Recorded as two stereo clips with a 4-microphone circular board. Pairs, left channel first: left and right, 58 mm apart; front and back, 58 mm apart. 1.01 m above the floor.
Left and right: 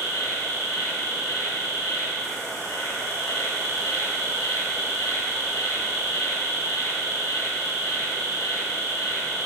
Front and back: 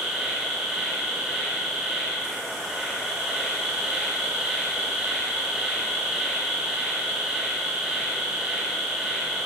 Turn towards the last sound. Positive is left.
turn(degrees=100)